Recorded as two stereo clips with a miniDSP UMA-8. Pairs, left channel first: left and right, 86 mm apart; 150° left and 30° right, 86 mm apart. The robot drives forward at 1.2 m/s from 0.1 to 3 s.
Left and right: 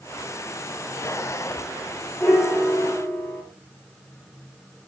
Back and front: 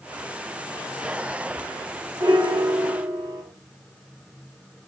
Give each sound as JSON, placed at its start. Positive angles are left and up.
{"t": 2.2, "sound": "a piano", "azimuth_deg": 20, "distance_m": 7.5}